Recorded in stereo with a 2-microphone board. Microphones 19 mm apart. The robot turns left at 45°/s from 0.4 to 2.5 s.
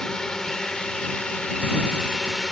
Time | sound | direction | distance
0.0 | a drone | 150° left | ?